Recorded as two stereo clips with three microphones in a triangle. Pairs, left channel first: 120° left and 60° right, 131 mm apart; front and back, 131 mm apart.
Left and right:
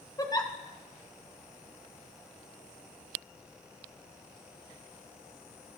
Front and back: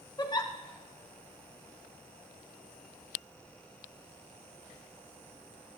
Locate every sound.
0.2 s a giggle: 55° left, 0.9 m